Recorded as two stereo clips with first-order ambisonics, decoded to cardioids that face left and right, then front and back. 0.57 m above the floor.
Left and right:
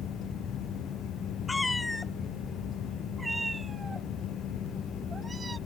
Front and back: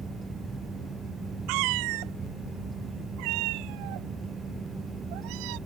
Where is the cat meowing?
170° left; by 5.6 s 165° right.